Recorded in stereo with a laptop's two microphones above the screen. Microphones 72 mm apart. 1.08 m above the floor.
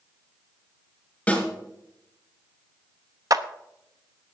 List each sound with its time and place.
1.3 s a snare drum: 15° left (ahead or behind), 5.5 m
3.3 s a clap: 50° right (ahead or behind), 0.7 m